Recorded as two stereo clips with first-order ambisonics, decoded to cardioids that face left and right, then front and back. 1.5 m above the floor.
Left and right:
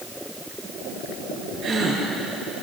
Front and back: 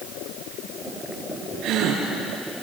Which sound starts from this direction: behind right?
A gasp, at 1.6 s.